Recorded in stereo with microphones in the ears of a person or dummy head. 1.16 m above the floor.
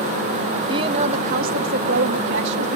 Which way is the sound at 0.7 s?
20° right (ahead or behind).